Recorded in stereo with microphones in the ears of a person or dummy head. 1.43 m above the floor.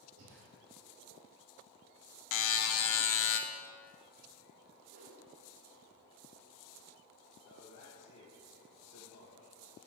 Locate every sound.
0.2 s breathing: 85° right, 2.5 m
2.3 s a buzzer: 60° left (ahead or behind), 0.6 m
4.9 s a whoosh: 35° right (ahead or behind), 1.1 m
7.5 s a man speaking: 80° left, 1.5 m